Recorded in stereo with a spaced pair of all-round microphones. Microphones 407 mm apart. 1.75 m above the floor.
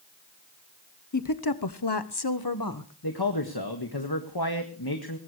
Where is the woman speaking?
45° left (ahead or behind), 1.1 m; by 2.9 s 50° left (ahead or behind), 1.9 m.